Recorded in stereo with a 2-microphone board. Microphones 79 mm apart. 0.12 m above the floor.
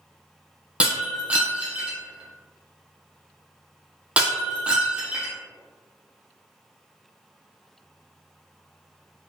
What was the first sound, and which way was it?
Breaking glass, 15° right (ahead or behind).